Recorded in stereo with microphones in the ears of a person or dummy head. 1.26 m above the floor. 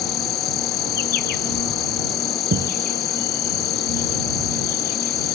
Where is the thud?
60° right (ahead or behind).